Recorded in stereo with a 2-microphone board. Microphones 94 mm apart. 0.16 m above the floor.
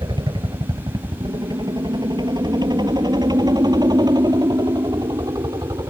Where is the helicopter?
55° right (ahead or behind); by 5.9 s 40° right (ahead or behind).